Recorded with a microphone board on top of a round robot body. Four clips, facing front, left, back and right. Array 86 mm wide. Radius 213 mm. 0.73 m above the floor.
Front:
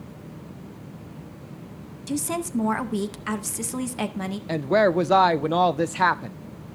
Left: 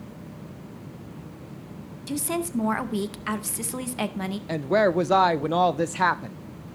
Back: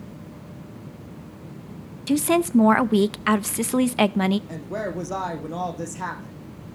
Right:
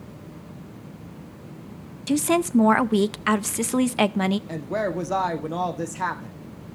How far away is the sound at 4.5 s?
About 0.7 m.